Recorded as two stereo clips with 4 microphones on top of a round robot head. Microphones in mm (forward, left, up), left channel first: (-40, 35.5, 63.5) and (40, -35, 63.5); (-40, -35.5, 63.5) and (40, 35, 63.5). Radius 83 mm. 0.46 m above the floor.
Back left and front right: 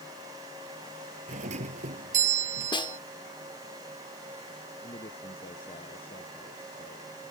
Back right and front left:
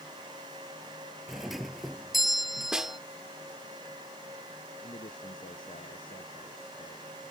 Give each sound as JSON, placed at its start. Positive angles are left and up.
{"t": 1.3, "sound": "a doorbell", "azimuth_deg": -45}
{"t": 2.7, "sound": "a snare drum", "azimuth_deg": 125}
{"t": 4.8, "sound": "a man speaking", "azimuth_deg": 175}